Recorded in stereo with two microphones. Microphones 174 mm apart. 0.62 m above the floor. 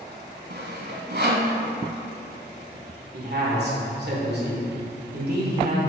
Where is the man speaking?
65° right (ahead or behind), 2.5 m.